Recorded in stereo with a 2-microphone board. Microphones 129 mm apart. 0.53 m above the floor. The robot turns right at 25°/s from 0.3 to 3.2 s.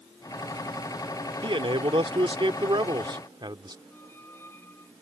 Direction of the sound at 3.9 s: 20° left (ahead or behind).